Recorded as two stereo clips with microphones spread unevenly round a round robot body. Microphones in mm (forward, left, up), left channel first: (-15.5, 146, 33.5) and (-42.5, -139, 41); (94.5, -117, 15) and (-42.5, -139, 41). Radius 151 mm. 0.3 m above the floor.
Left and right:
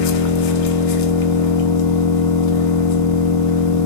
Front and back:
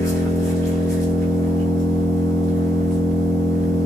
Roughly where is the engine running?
Left.